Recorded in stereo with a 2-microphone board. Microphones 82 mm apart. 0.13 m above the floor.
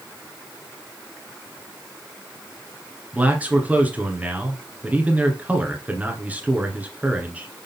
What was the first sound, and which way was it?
A man speaking, 15° right (ahead or behind).